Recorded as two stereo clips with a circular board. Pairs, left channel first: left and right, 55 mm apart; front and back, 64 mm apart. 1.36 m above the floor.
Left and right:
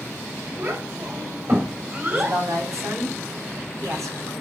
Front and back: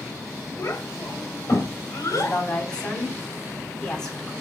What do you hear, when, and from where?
0.6 s a child speaking: 50° right, 5 m; by 2.4 s 35° right, 5.5 m
2.1 s a woman speaking: 75° right, 7 m